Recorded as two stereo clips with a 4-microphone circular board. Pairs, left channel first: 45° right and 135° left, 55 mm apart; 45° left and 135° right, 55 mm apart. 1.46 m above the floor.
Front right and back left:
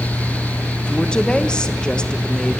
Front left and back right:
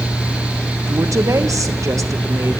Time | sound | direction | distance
0.9 | a woman speaking | 120° right | 1.5 m